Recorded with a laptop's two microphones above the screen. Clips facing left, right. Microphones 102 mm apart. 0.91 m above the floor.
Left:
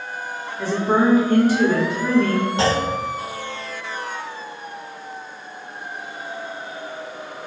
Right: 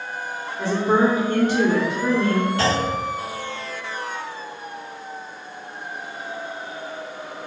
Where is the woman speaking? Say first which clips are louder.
Even; 20° right (ahead or behind), 1.1 m.